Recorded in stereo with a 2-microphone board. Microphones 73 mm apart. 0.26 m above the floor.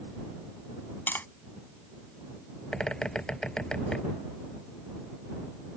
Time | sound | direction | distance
1.1 | tapping | 25° left (ahead or behind) | ?
2.7 | a bird | 10° left (ahead or behind) | ?